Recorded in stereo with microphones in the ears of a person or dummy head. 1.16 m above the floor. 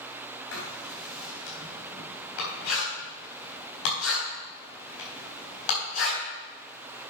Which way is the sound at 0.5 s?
75° left (ahead or behind).